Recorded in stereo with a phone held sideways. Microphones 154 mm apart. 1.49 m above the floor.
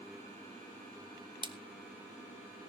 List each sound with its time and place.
1.4 s a splash: 30° right (ahead or behind), 1.0 m